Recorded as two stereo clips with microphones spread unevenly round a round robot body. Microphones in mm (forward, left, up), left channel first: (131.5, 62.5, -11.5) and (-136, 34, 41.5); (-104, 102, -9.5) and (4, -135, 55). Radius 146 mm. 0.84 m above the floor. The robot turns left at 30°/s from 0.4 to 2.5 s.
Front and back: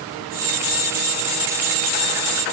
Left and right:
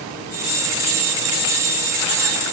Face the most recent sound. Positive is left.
No sound to turn to.